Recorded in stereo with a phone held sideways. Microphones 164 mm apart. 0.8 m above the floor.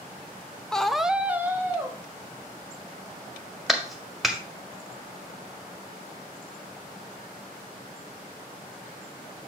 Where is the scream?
5° left (ahead or behind), 0.6 m; by 2.0 s 15° right (ahead or behind), 1.0 m.